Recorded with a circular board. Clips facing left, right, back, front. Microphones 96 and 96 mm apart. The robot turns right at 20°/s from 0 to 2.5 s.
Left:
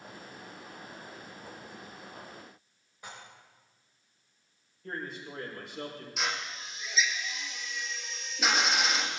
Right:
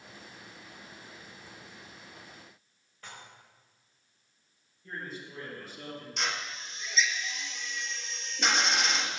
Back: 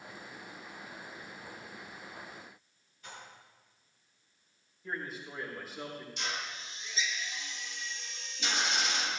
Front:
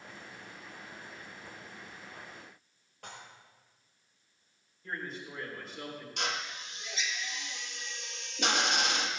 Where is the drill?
5° left, 1.5 m.